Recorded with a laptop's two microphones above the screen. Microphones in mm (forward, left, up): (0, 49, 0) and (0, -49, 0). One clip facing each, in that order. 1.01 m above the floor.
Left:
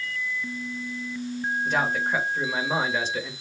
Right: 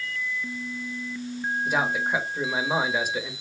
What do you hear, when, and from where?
1.6 s a man speaking: 10° right (ahead or behind), 1.4 m